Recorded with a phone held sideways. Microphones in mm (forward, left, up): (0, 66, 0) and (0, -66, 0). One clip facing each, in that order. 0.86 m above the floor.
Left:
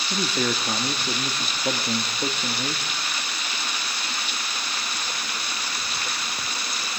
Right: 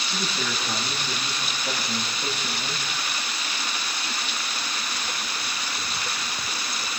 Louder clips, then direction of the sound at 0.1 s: Left 6 dB; 50° left (ahead or behind).